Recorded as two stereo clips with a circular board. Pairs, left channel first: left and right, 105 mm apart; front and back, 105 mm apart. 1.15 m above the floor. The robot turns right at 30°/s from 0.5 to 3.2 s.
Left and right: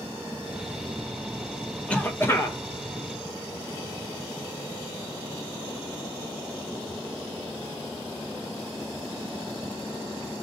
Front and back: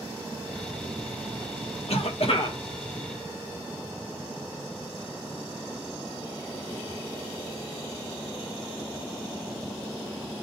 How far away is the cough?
About 1.0 m.